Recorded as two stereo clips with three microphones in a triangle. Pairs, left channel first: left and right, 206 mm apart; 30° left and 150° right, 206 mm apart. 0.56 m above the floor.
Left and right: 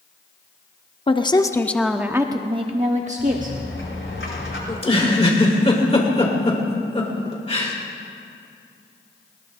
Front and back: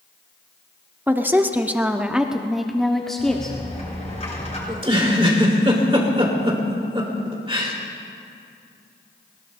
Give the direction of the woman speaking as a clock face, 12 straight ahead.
7 o'clock.